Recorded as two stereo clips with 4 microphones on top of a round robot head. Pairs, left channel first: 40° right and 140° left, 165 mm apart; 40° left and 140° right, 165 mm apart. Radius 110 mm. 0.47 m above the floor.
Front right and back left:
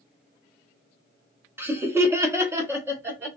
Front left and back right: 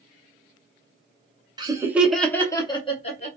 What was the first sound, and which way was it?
Laughter, 160° right.